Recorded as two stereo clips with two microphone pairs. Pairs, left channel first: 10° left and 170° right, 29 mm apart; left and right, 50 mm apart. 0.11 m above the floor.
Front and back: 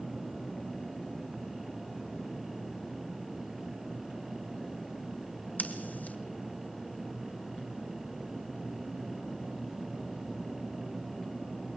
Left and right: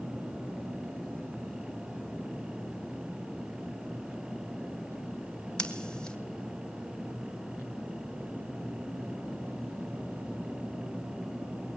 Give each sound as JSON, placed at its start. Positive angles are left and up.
{"t": 5.6, "sound": "scissors", "azimuth_deg": 15, "distance_m": 1.8}